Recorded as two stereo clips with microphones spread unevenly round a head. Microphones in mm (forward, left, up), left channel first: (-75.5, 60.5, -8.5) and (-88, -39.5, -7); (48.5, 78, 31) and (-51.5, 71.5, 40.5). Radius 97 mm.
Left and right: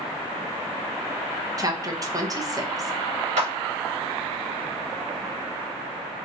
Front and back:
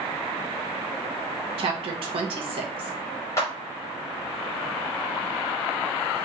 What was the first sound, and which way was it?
A woman speaking, 145° right.